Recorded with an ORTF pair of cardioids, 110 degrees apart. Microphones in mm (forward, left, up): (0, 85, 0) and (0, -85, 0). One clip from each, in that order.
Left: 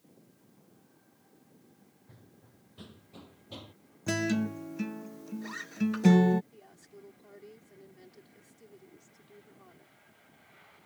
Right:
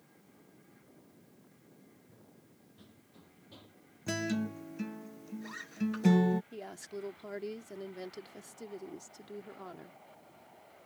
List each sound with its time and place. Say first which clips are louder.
2.1 s running footsteps: even; 60° left; by 3.8 s 65° left
4.1 s a guitar: left 4 dB; 20° left
6.5 s a woman speaking: right 11 dB; 65° right